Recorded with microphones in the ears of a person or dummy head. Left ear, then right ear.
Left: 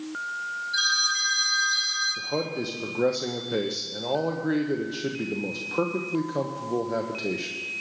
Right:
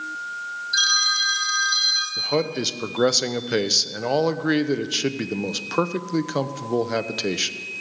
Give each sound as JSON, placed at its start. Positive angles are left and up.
{"t": 0.7, "sound": "a phone ringing", "side_deg": -45, "distance_m": 4.0}
{"t": 2.2, "sound": "a man speaking", "side_deg": -55, "distance_m": 0.6}